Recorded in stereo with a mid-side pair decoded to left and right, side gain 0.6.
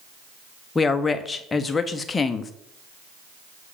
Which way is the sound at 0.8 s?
20° left.